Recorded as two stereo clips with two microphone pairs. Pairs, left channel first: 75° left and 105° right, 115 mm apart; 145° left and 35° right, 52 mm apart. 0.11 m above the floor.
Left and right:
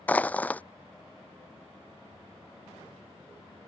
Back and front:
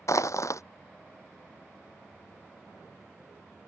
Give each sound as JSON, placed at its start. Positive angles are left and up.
{"t": 0.1, "sound": "crushing", "azimuth_deg": 155}